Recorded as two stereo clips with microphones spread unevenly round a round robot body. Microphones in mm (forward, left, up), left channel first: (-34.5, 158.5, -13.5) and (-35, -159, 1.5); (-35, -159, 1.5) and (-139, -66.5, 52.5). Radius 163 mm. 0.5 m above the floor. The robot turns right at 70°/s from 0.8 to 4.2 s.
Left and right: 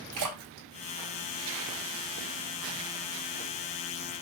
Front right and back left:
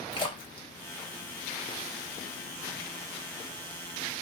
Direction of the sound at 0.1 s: 70° right.